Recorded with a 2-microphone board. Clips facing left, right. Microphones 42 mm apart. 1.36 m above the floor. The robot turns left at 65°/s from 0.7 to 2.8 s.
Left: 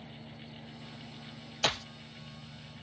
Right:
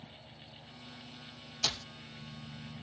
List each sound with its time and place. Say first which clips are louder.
0.0 s an engine running: left 4 dB; 95° left; by 2.8 s 45° right
1.6 s a clap: left 6 dB; 35° left (ahead or behind); by 1.9 s 20° left (ahead or behind)